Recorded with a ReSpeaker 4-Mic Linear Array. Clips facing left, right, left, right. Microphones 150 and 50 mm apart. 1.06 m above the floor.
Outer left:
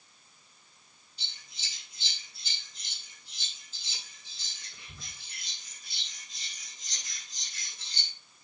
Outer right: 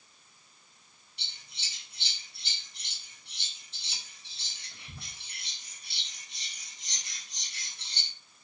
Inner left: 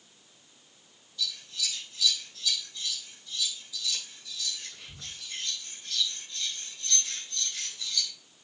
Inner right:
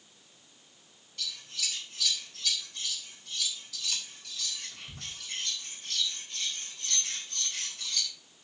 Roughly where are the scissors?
Right.